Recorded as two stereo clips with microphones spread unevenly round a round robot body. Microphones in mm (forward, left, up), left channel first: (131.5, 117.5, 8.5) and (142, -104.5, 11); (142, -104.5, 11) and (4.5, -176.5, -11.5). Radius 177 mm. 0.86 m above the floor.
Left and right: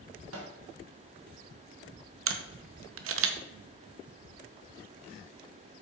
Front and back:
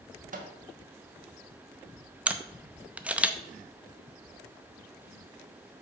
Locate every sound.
0.3 s a microwave: 130° right, 1.2 m
2.3 s a camera shutter: 75° right, 0.8 m